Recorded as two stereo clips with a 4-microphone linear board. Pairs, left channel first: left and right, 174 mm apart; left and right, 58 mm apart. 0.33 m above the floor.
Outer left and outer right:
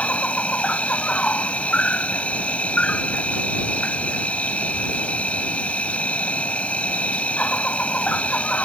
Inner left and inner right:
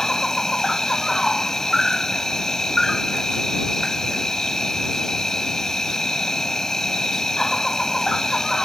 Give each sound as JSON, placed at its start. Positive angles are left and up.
{"t": 0.0, "sound": "an insect", "side_deg": 10}